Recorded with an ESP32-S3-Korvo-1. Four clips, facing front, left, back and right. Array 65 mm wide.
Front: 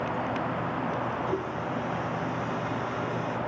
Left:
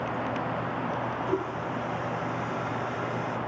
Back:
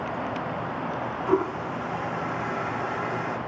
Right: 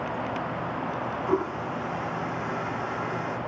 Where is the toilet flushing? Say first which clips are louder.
Right 3 dB, back 5 dB; 155° right, 1.0 m.